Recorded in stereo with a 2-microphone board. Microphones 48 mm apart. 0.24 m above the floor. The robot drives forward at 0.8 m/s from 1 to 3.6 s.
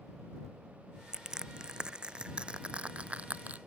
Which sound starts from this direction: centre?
Crushing, at 1.1 s.